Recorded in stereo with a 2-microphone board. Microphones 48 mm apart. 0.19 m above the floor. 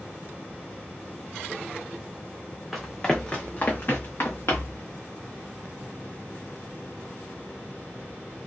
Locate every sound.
2.7 s running footsteps: 5° left (ahead or behind), 0.9 m; by 4.8 s 70° left (ahead or behind), 1.2 m